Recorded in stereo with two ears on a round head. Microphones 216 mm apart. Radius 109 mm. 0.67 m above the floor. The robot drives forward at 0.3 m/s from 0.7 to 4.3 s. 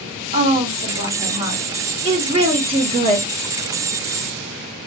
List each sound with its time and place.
0.3 s a woman speaking: 30° right (ahead or behind), 1.3 m; by 3.3 s 20° right (ahead or behind), 1.7 m